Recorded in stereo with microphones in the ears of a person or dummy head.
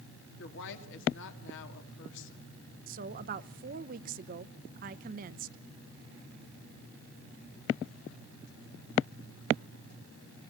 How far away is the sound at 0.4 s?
About 2.5 m.